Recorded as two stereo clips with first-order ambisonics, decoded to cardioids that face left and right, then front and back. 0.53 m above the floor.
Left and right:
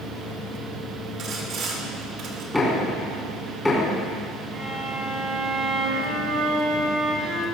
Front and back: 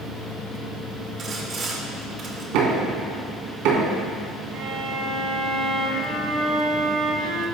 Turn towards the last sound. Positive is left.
turn(degrees=-145)